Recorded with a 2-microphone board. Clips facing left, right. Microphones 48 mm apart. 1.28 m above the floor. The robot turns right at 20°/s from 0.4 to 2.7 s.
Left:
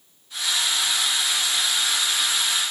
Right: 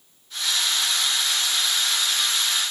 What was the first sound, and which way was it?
Only background noise.